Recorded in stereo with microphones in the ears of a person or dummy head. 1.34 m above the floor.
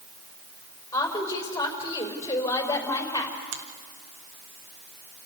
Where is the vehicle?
I don't hear a vehicle.